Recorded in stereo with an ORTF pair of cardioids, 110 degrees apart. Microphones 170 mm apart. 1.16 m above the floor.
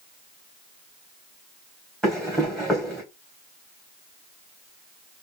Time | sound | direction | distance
2.0 | running footsteps | 5° left | 4 m